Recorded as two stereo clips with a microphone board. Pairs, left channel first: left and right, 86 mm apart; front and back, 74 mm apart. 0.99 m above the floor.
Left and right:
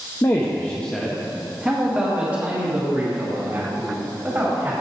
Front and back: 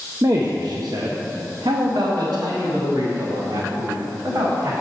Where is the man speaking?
140° left, 0.6 m; by 4.7 s 150° right, 2.5 m.